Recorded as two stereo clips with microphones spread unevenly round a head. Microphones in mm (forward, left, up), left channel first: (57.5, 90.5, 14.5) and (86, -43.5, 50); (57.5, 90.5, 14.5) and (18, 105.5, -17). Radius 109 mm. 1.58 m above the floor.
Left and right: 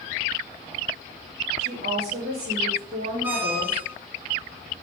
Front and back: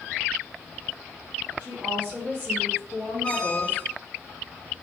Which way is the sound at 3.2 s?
10° right.